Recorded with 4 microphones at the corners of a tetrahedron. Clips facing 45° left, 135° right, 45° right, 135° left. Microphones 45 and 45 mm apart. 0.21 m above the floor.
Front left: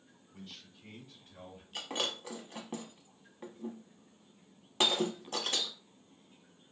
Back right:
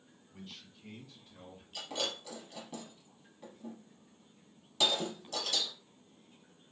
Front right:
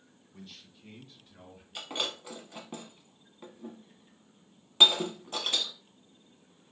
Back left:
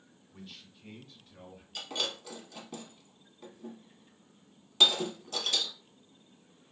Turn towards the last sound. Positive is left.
turn(degrees=10)